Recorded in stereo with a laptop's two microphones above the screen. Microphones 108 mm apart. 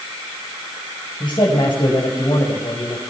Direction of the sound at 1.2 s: 50° left (ahead or behind).